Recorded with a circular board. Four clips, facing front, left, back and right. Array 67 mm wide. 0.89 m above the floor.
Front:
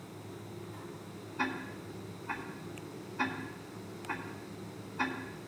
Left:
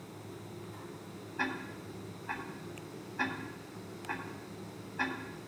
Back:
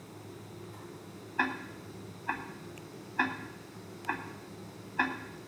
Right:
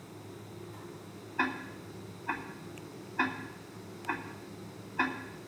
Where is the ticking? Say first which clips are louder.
Right 3 dB, back 3 dB; 150° right, 2.5 m.